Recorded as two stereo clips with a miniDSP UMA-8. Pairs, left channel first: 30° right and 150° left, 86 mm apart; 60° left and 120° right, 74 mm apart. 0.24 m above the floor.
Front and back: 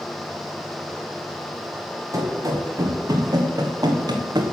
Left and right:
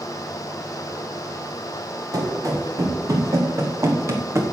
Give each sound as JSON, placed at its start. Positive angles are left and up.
{"t": 2.1, "sound": "running footsteps", "azimuth_deg": -160, "distance_m": 4.0}